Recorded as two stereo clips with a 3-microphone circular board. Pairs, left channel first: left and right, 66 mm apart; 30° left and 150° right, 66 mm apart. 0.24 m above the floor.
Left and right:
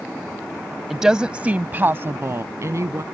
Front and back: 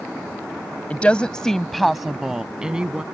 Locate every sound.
0.9 s a woman speaking: 10° right; by 3.0 s 75° right